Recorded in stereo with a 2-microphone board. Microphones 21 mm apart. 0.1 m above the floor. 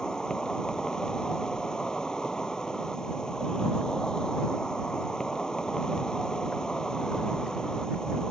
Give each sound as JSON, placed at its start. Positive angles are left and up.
{"t": 0.0, "sound": "an insect", "side_deg": 35}